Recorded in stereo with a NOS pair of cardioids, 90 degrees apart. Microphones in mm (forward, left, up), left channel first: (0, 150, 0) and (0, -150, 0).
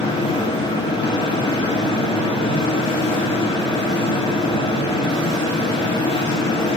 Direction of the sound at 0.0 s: 20° left.